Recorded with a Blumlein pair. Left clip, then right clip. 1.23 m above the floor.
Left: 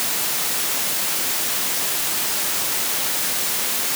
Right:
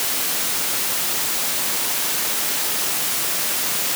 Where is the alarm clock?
No alarm clock in this recording.